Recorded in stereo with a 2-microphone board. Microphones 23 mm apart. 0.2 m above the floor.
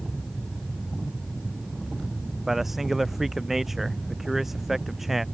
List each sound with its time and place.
2.5 s a man speaking: 10° right (ahead or behind)